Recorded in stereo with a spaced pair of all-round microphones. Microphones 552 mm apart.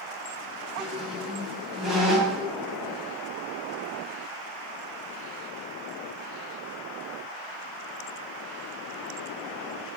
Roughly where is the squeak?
Centre.